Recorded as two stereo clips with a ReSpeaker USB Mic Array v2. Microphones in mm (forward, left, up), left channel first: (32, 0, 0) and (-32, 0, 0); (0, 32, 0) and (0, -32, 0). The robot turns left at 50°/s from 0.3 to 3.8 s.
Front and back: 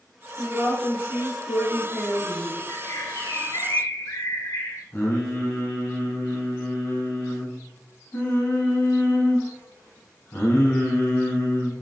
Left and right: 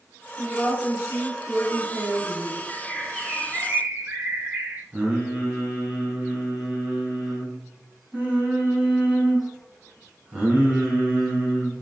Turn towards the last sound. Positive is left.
turn(degrees=-35)